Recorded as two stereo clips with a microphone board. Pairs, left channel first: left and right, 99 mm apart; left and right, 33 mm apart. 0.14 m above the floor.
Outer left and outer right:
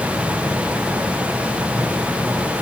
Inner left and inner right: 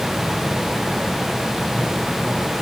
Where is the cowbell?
I don't hear a cowbell.